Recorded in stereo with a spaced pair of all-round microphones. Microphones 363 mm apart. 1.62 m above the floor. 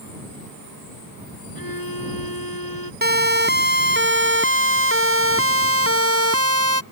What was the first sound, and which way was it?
A violin, 70° left (ahead or behind).